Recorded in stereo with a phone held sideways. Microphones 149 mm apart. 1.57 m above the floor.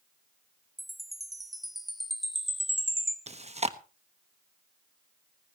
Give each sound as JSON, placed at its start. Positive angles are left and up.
{"t": 0.8, "sound": "a chime", "side_deg": 0, "distance_m": 1.2}
{"t": 3.3, "sound": "chewing", "side_deg": -45, "distance_m": 1.1}